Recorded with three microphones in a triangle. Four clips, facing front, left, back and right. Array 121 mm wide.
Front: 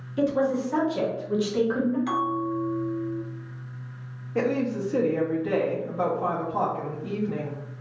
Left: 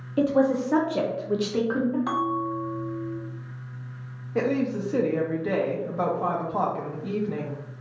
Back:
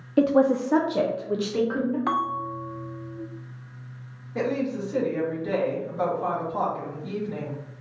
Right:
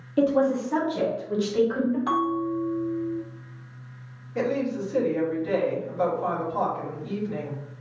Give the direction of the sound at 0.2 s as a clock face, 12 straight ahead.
6 o'clock.